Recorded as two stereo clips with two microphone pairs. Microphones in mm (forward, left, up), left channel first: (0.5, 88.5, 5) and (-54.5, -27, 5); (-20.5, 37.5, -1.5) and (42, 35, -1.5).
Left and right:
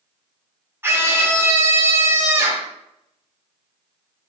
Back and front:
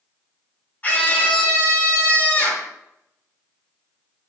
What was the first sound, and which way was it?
A scream, 160° right.